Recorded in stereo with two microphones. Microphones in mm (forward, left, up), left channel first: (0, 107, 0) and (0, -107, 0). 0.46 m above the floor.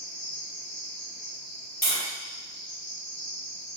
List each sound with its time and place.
0.0 s an insect: 55° left (ahead or behind), 1.6 m
1.8 s tapping: 45° left (ahead or behind), 1.5 m